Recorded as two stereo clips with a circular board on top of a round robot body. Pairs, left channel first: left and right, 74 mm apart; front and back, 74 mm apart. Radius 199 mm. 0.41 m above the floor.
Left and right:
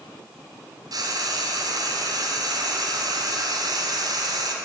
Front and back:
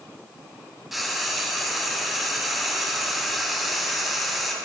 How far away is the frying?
About 2 m.